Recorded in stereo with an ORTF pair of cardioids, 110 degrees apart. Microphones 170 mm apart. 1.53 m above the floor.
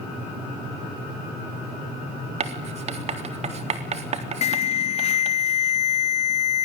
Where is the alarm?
40° left, 0.5 m.